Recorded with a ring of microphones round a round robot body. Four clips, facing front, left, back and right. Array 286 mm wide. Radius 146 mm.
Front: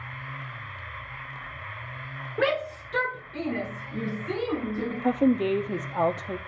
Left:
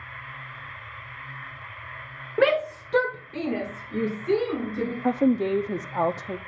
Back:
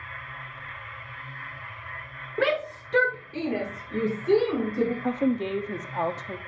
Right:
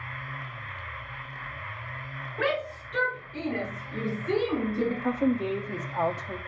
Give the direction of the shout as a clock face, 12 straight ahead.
9 o'clock.